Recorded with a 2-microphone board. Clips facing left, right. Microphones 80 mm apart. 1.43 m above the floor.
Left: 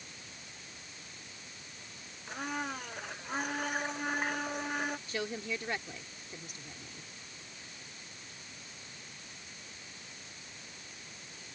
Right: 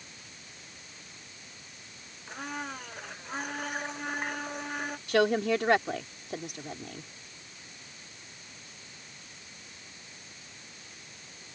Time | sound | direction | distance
2.3 | a blender | centre (ahead or behind) | ?
5.1 | a woman speaking | 85° right | ?